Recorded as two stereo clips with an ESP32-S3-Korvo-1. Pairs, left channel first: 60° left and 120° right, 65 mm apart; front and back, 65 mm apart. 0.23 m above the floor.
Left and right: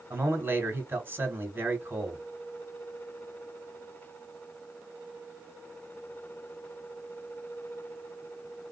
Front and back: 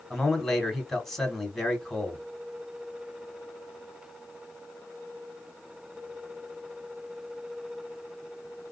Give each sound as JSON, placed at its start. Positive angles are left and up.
{"t": 0.1, "sound": "a man speaking", "azimuth_deg": -85, "distance_m": 1.9}